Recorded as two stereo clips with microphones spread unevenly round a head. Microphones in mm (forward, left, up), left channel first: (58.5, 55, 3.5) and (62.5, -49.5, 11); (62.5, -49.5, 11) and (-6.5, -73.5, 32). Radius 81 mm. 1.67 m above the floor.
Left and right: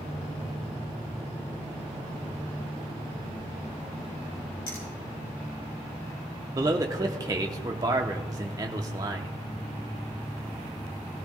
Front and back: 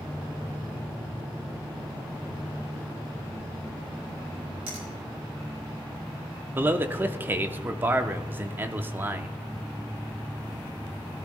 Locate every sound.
4.7 s a finger snap: 160° left, 3.5 m
6.5 s a man speaking: 130° right, 0.7 m